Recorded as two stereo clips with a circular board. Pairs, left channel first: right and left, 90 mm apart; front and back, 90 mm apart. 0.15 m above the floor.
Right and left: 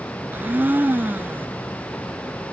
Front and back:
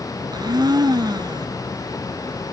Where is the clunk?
I don't hear a clunk.